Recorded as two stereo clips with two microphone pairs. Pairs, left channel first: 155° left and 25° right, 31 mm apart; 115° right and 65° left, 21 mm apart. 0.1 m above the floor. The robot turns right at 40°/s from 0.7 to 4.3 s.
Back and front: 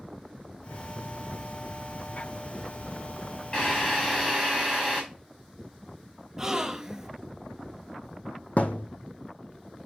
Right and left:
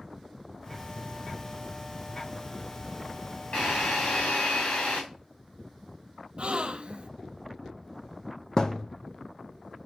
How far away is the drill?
About 4.5 m.